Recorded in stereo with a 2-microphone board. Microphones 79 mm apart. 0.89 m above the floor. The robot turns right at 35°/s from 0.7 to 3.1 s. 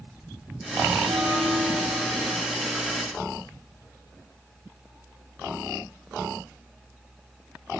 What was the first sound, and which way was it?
A bell, 55° right.